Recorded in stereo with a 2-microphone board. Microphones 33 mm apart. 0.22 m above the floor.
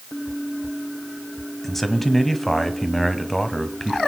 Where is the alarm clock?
I don't hear an alarm clock.